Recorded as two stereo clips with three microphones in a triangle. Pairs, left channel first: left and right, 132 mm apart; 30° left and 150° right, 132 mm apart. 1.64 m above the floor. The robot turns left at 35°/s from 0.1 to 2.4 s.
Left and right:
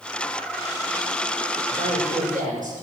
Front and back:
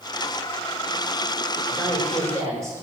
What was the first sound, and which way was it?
A woman speaking, 55° right.